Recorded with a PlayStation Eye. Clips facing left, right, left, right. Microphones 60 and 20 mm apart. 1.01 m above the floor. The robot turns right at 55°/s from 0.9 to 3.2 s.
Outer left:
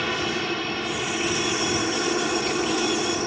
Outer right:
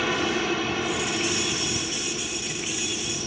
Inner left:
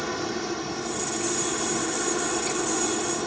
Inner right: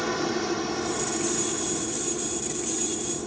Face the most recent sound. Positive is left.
turn(degrees=125)